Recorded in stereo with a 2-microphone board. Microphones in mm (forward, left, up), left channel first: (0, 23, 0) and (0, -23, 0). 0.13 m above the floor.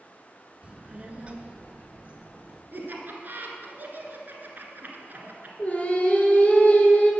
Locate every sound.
0.6 s a child speaking: 25° right (ahead or behind), 0.7 m
2.7 s laughter: 45° right (ahead or behind), 1.5 m
5.6 s singing: 30° left (ahead or behind), 1.5 m